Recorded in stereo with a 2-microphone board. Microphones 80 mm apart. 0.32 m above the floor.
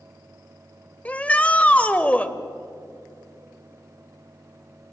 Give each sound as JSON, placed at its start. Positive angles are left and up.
{"t": 1.1, "sound": "a shout", "side_deg": 20, "distance_m": 1.1}